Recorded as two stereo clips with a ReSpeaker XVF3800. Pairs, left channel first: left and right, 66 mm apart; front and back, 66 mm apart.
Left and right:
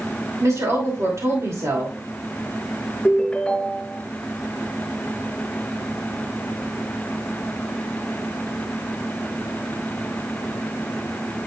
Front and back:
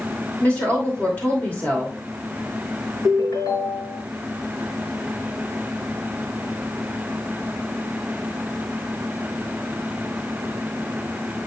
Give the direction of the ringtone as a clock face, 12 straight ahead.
12 o'clock.